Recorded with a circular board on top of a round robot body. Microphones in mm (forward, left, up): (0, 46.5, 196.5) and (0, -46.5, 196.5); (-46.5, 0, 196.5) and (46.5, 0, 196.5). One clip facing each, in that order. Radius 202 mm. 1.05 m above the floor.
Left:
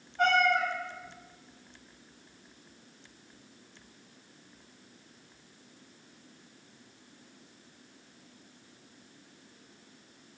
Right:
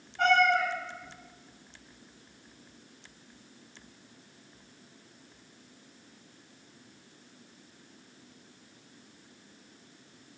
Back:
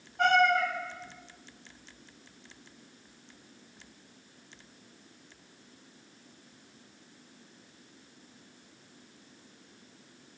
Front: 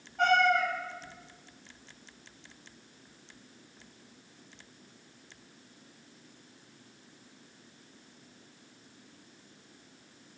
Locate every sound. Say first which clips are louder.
0.2 s a cat meowing: right 1 dB, back 1 dB; 25° left, 1.5 m